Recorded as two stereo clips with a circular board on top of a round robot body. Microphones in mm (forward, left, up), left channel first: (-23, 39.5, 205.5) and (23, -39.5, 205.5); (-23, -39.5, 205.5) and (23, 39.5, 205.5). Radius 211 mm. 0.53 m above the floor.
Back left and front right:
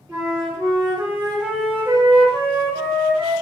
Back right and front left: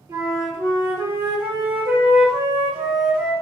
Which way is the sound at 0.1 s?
10° left.